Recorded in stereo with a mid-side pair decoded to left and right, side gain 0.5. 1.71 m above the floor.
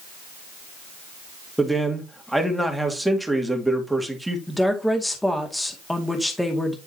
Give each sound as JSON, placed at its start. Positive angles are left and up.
{"t": 1.6, "sound": "a man speaking", "azimuth_deg": -5, "distance_m": 2.0}
{"t": 4.5, "sound": "a woman speaking", "azimuth_deg": 10, "distance_m": 2.0}